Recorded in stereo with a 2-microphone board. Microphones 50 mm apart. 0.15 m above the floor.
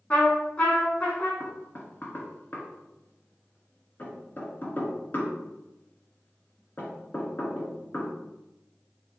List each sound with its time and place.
0.1 s a trumpet: 25° left (ahead or behind), 3.5 m
1.4 s knocking: 35° left (ahead or behind), 1.9 m